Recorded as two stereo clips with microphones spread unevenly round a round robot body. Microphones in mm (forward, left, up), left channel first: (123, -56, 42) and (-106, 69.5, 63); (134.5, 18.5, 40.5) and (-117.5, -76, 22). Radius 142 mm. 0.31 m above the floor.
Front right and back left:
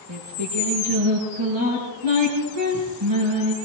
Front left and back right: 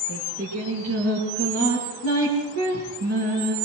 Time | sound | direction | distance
0.1 | singing | 160° left | 8 m